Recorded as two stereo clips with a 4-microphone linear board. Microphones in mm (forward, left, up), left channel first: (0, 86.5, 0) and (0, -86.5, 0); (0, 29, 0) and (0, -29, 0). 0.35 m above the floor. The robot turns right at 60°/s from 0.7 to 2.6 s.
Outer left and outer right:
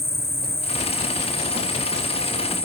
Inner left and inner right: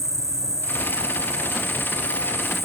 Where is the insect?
110° right; by 2.6 s 5° left.